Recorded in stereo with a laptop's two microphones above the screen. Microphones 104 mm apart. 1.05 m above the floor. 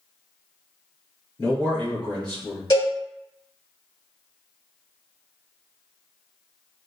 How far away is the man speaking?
About 0.8 m.